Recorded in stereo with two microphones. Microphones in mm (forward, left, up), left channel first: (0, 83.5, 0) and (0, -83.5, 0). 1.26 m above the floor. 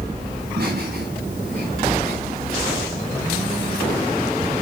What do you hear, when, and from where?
0.4 s laughter: 80° right, 4 m; by 2.7 s 55° right (ahead or behind), 5.5 m